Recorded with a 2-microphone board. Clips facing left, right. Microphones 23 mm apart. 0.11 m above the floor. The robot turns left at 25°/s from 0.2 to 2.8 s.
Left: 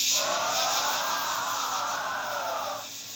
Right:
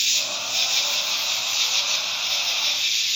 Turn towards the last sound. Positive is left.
turn(degrees=-95)